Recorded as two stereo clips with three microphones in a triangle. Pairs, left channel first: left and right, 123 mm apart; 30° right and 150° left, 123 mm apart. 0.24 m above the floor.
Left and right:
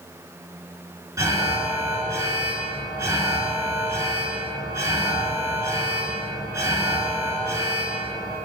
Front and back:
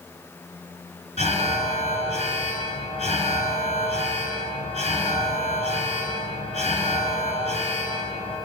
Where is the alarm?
25° right, 1.8 m.